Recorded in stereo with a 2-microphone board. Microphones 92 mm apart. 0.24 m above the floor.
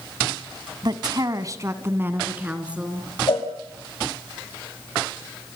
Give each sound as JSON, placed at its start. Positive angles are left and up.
{"t": 0.8, "sound": "a woman speaking", "side_deg": -50, "distance_m": 1.6}
{"t": 3.3, "sound": "a cowbell", "side_deg": 75, "distance_m": 4.5}